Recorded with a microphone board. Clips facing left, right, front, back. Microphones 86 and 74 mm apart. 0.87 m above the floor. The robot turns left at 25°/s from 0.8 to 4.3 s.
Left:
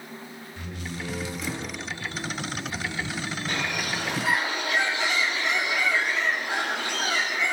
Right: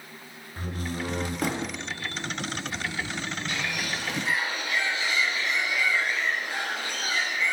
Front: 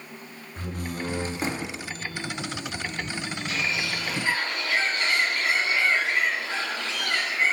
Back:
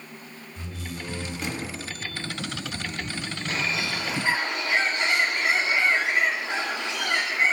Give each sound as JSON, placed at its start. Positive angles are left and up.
{"t": 0.6, "sound": "a door slam", "azimuth_deg": -40, "distance_m": 0.7}
{"t": 3.5, "sound": "a bird", "azimuth_deg": 130, "distance_m": 1.3}